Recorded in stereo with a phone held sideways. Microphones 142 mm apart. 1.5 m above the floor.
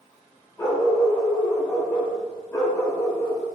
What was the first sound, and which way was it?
A dog barking, 20° left (ahead or behind).